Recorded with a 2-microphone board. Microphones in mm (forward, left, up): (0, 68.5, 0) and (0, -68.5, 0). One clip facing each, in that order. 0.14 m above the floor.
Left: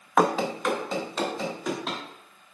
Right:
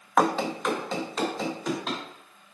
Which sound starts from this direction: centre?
Running footsteps, at 0.2 s.